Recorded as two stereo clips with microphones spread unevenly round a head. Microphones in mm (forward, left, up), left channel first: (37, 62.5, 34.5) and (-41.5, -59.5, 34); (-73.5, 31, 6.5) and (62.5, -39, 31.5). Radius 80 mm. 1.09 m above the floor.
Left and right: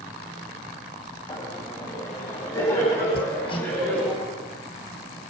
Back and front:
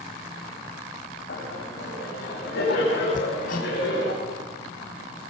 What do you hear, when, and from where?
1.3 s laughter: 120° left, 7 m; by 4.1 s 135° left, 7.5 m
3.1 s hammering: 115° left, 6 m